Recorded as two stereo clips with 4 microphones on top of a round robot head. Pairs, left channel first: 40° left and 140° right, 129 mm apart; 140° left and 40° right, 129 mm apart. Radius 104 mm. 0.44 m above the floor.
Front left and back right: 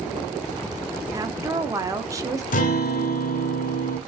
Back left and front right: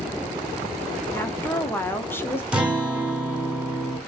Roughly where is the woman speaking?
Behind.